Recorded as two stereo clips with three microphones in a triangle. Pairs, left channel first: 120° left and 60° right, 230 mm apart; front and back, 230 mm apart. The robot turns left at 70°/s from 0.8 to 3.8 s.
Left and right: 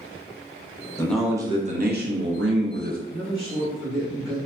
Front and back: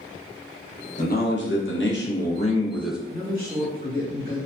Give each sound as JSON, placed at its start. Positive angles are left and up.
{"t": 1.0, "sound": "a man speaking", "azimuth_deg": 45, "distance_m": 0.7}
{"t": 3.1, "sound": "a man speaking", "azimuth_deg": -95, "distance_m": 1.3}